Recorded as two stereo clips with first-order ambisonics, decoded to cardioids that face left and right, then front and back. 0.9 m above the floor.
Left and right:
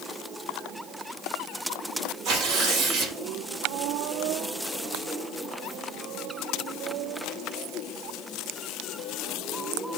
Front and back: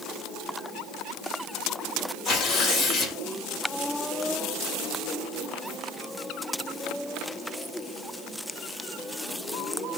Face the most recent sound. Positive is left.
turn(degrees=-60)